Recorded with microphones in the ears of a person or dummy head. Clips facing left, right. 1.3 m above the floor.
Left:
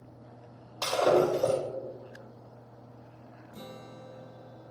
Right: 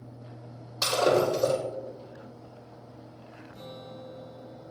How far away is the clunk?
No clunk in this recording.